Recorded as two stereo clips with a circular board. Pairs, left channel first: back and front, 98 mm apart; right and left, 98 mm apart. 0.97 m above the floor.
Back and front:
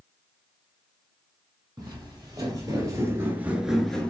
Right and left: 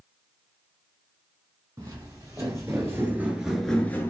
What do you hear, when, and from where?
1.8 s footsteps: 40° left, 2 m; by 4.1 s 120° right, 1.0 m